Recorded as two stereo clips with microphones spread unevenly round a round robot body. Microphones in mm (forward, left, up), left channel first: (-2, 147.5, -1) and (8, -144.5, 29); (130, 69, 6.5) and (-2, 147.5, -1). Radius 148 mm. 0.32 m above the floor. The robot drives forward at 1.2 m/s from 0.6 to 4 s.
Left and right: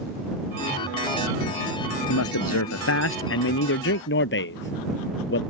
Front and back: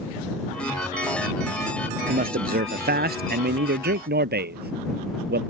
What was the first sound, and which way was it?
A man speaking, 130° left.